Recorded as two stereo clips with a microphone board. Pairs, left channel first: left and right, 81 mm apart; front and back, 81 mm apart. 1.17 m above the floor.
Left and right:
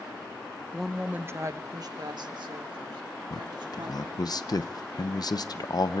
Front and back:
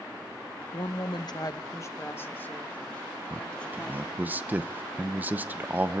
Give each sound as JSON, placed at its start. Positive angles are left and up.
{"t": 0.7, "sound": "a woman speaking", "azimuth_deg": 10, "distance_m": 0.7}
{"t": 3.3, "sound": "a man speaking", "azimuth_deg": 115, "distance_m": 0.8}